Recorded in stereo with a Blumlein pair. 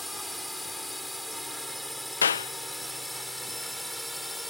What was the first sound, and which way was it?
A drone, straight ahead.